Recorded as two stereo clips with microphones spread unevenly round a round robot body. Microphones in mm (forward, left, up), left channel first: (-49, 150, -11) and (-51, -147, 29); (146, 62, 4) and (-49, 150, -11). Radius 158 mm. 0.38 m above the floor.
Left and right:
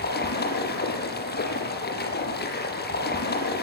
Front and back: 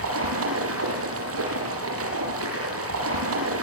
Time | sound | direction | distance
0.0 | running water | 145° left | 6.5 m